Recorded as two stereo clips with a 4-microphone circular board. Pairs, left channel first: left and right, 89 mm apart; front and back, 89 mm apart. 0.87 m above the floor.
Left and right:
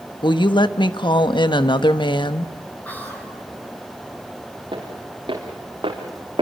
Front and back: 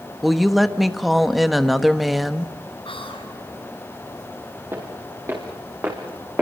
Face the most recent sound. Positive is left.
turn(degrees=-110)